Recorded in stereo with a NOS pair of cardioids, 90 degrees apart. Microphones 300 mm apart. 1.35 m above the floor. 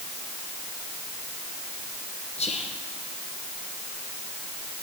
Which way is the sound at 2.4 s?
20° left.